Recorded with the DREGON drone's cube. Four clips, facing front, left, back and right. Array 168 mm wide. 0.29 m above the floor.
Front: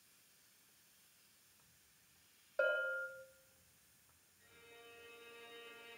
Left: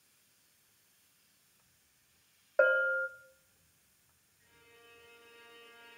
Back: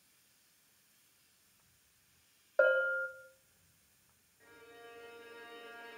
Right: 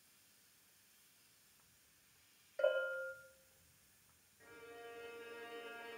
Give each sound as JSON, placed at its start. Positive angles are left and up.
{"t": 2.6, "sound": "a bell", "azimuth_deg": 120, "distance_m": 2.5}
{"t": 4.4, "sound": "a violin", "azimuth_deg": -135, "distance_m": 6.0}